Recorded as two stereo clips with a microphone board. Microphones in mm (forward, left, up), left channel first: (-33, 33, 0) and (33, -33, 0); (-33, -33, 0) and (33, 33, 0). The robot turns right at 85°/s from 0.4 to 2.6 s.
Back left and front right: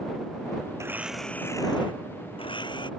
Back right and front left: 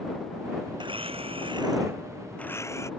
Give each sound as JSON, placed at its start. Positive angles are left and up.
{"t": 0.8, "sound": "a blender", "azimuth_deg": 10}